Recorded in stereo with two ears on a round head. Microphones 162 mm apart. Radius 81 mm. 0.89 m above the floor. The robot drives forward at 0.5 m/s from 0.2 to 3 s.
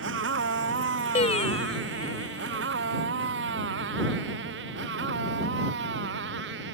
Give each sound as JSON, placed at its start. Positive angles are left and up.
{"t": 0.0, "sound": "a motorcycle", "side_deg": -85}
{"t": 1.1, "sound": "singing", "side_deg": 40}